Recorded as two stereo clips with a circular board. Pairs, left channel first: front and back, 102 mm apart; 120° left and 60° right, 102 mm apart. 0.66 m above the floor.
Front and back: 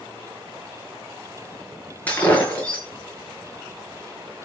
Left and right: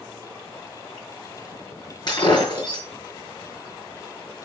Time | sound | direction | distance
2.1 | breaking glass | 75° left | 6.5 m